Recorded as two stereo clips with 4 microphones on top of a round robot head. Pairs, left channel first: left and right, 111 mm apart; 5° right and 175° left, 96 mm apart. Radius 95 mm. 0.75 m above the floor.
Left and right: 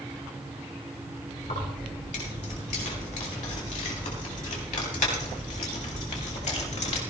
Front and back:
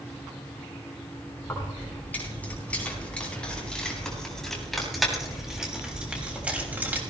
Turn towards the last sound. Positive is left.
turn(degrees=110)